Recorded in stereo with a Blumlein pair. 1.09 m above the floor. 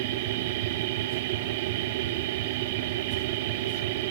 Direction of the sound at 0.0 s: 50° right.